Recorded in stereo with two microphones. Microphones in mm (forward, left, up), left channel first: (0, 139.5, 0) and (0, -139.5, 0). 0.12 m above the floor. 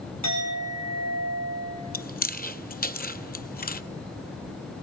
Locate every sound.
0.2 s a clink: 65° right (ahead or behind), 6 m
1.9 s chewing: 30° left (ahead or behind), 0.6 m